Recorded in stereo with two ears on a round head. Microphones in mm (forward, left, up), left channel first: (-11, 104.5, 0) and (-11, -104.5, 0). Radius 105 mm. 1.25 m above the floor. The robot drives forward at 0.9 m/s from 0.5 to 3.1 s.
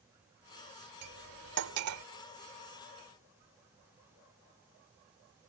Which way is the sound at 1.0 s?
80° right.